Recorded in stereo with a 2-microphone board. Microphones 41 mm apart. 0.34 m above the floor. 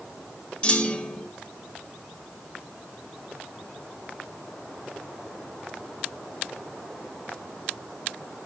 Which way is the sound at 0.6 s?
25° left (ahead or behind).